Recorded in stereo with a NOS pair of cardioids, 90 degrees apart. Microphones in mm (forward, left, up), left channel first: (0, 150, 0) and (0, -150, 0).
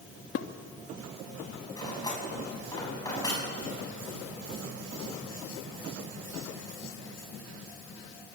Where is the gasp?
I don't hear a gasp.